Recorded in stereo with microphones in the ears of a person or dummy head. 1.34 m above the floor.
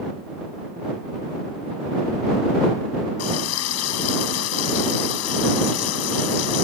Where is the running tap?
75° left (ahead or behind).